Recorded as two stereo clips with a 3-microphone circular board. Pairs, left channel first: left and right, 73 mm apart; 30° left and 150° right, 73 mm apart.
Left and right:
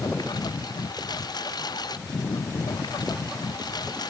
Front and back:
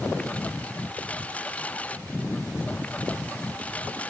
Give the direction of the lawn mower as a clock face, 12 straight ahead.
9 o'clock.